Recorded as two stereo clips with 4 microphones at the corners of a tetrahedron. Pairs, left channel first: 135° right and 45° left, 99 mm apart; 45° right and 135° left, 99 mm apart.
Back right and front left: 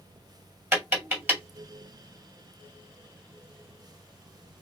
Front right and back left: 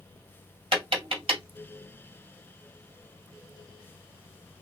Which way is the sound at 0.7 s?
115° left.